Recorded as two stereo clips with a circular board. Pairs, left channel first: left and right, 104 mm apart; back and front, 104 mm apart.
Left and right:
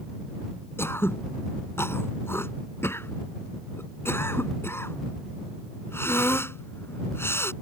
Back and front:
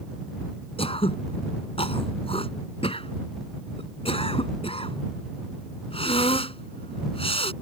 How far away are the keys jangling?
I don't hear keys jangling.